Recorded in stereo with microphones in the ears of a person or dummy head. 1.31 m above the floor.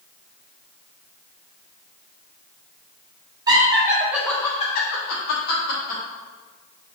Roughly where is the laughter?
Right.